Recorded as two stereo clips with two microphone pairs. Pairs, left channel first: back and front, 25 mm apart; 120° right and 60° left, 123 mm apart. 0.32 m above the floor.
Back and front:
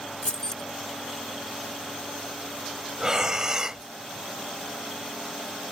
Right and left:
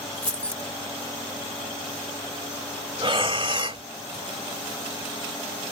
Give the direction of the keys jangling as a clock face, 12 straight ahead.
6 o'clock.